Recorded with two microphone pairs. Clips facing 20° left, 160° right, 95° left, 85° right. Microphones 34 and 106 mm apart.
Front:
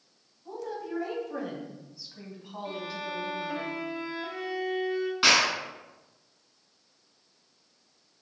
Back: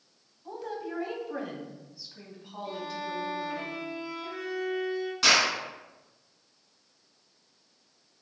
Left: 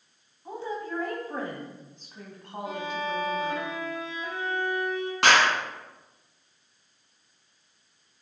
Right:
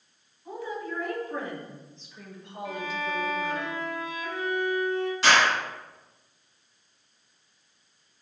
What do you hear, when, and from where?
0.5 s a woman speaking: 145° left, 1.6 m; by 3.6 s 85° left, 2.5 m
2.6 s a violin: 50° left, 1.6 m
5.2 s a clap: 80° left, 2.5 m